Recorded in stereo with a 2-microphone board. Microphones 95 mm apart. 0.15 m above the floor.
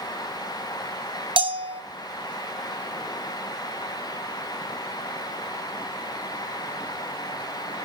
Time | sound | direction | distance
1.4 | a bell | 70° right (ahead or behind) | 0.6 m